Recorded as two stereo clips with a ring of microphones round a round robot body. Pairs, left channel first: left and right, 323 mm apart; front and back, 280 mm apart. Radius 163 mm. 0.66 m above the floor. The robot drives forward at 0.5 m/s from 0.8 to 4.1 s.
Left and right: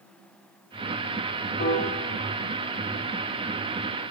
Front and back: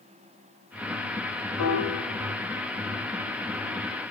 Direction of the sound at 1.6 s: 30° left.